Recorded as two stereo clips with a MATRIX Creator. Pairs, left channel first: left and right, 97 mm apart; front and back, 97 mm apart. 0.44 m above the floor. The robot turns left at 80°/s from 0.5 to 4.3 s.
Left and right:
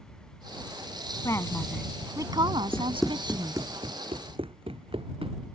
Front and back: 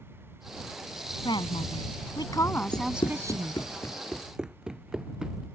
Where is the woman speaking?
40° left; by 3.6 s 150° right.